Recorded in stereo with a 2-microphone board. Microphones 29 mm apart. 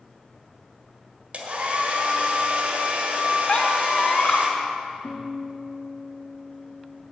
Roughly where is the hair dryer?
Right.